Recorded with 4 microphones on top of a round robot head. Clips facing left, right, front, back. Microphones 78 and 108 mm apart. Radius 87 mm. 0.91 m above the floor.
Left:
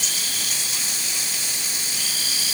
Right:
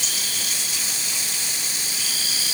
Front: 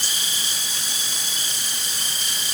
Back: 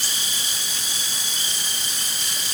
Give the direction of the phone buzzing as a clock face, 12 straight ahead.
I don't hear a phone buzzing.